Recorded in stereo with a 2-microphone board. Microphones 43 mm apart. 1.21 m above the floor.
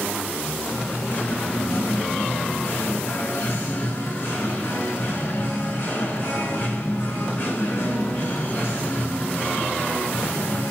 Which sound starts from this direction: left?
Singing, at 0.7 s.